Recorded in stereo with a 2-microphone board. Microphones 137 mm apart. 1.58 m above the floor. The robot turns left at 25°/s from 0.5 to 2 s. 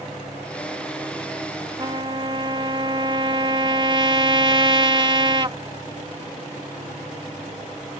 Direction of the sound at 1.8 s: 30° right (ahead or behind).